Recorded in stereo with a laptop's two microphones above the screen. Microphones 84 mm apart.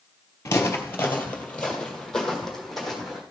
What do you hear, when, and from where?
0.5 s footsteps: 35° left (ahead or behind), 1.3 m; by 3.2 s centre (ahead or behind), 2.5 m